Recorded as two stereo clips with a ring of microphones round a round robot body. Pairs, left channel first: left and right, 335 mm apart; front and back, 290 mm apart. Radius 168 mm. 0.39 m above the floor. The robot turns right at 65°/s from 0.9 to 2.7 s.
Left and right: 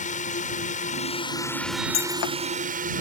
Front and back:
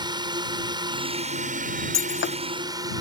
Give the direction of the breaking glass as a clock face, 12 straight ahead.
11 o'clock.